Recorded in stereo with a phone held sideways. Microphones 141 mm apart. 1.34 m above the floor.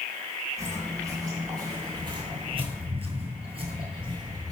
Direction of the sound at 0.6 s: 20° right (ahead or behind).